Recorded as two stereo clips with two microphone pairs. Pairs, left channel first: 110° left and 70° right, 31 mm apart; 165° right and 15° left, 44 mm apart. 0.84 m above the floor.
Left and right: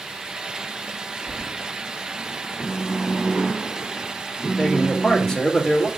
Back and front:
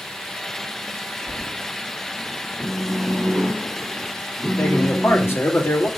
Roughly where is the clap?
No clap in this recording.